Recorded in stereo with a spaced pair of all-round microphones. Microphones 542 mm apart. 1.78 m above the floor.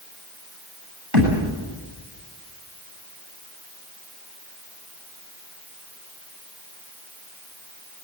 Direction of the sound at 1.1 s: 65° right (ahead or behind).